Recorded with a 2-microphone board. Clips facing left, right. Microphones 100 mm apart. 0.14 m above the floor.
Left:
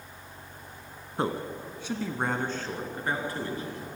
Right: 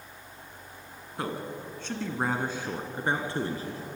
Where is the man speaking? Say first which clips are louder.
Left 4 dB; 30° left (ahead or behind), 1.8 m; by 3.8 s 35° right (ahead or behind), 2.5 m.